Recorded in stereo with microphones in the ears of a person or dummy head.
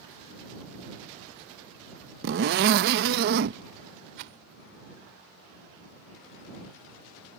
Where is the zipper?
45° right (ahead or behind).